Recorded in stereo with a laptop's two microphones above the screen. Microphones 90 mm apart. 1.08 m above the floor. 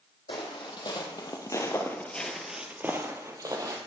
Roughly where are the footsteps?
Left.